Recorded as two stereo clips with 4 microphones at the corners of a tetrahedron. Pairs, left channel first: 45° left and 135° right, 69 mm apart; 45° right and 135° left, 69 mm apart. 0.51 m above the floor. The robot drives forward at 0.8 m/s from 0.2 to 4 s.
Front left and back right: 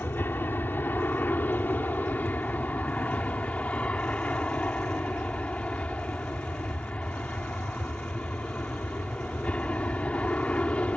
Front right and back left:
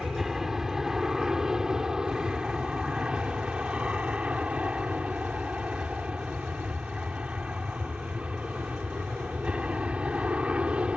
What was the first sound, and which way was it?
An aircraft, 55° left.